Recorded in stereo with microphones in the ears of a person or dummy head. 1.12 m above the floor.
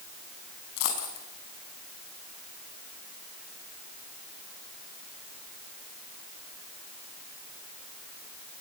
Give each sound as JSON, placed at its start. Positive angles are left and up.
{"t": 0.8, "sound": "a dropped coin", "side_deg": 85, "distance_m": 5.0}